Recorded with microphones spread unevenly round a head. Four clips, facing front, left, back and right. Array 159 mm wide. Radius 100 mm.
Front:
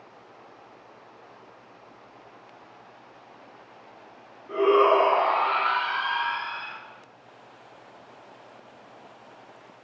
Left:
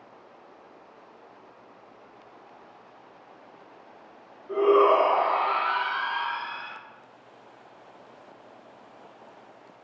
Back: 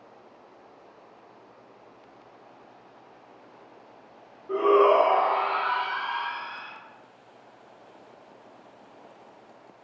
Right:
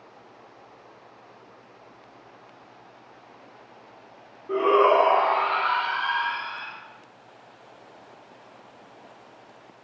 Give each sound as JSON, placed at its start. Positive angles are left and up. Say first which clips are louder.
{"t": 4.5, "sound": "a shout", "louder": "even, even", "azimuth_deg": -85, "distance_m": 0.9}